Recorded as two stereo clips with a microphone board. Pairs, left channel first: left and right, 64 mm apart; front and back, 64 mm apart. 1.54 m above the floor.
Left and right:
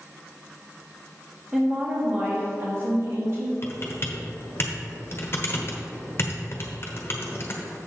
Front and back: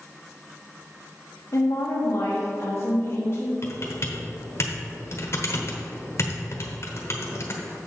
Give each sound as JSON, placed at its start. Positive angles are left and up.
{"t": 1.5, "sound": "a woman speaking", "azimuth_deg": -20, "distance_m": 1.4}
{"t": 3.6, "sound": "typing on a keyboard", "azimuth_deg": 40, "distance_m": 1.1}